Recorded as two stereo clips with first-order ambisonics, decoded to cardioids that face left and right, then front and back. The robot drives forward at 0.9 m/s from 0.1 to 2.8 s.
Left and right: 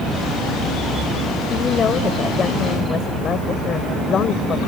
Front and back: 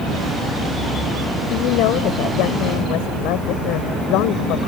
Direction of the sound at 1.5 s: 25° left.